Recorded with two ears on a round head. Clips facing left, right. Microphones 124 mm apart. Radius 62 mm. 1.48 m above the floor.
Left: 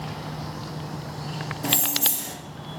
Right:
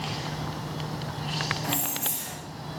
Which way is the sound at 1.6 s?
35° left (ahead or behind).